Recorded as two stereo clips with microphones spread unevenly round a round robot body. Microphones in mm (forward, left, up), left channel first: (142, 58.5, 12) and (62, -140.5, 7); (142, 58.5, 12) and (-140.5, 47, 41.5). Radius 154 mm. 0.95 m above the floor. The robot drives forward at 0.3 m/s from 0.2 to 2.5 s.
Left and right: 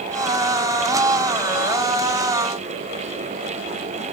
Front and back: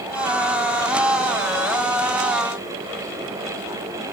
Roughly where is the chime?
I don't hear a chime.